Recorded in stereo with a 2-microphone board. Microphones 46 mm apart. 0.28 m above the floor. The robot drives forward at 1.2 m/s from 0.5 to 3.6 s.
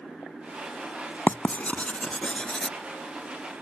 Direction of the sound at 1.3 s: 45° left (ahead or behind).